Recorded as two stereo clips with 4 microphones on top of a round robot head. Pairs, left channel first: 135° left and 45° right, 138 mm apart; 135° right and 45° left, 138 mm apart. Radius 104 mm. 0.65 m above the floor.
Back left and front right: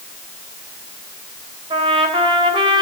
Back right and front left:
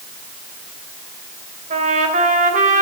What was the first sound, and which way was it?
A trumpet, 10° left.